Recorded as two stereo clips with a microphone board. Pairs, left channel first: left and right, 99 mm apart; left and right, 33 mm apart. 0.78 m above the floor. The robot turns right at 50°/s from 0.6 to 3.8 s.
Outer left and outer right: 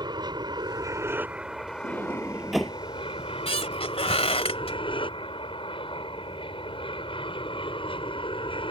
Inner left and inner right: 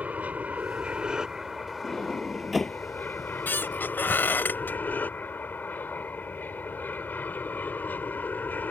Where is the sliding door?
35° right (ahead or behind); by 2.8 s 10° left (ahead or behind).